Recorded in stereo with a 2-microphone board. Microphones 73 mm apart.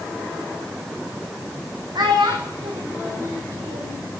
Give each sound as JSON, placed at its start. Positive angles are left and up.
{"t": 1.9, "sound": "a child speaking", "side_deg": -75, "distance_m": 3.0}